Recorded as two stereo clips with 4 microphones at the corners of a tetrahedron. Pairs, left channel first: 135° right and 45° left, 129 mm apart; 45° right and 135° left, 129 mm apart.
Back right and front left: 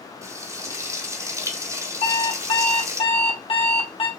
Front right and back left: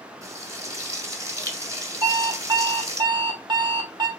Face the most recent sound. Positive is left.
turn(degrees=-170)